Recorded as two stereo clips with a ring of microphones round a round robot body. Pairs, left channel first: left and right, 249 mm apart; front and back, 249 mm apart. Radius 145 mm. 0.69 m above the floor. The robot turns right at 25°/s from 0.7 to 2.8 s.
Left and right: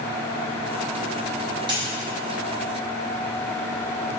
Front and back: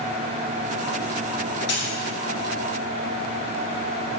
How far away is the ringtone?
I don't hear a ringtone.